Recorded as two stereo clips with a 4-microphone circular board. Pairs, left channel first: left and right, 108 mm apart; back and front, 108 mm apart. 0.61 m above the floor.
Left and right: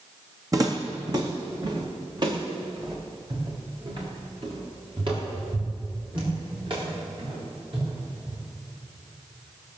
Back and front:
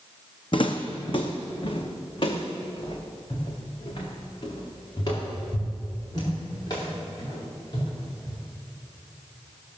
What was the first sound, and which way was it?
Footsteps, 145° right.